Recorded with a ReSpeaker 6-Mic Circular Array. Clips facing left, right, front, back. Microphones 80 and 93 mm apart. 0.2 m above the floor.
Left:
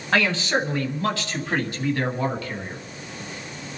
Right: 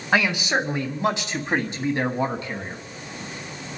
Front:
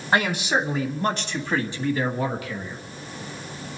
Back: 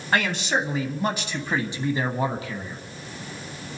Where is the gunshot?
No gunshot in this recording.